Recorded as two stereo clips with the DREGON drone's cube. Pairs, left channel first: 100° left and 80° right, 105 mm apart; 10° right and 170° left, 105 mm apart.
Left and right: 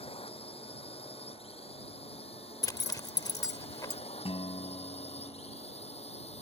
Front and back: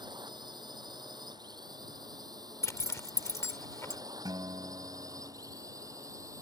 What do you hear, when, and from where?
0.0 s a drone: 125° left; by 6.4 s 110° left
2.6 s a zipper: 45° left
4.2 s a guitar: 120° left